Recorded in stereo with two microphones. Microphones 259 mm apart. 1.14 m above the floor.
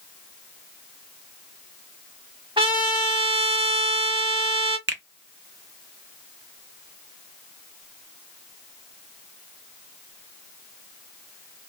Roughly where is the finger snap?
Right.